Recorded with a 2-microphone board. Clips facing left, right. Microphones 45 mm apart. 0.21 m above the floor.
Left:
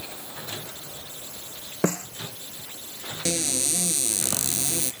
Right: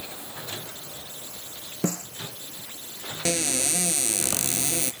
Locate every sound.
1.8 s a snare drum: 55° left (ahead or behind)
3.2 s a cupboard door: 40° right (ahead or behind)